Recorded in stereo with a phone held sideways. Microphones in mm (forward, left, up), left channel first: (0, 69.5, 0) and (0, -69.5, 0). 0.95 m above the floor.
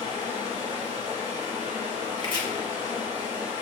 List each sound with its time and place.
0.0 s running water: 50° right (ahead or behind), 1.7 m
2.2 s chopping: 35° left (ahead or behind), 1.0 m